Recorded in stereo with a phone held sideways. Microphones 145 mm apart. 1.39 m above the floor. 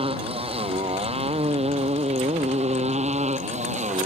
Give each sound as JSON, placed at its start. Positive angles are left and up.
{"t": 0.0, "sound": "a motorcycle", "side_deg": -40}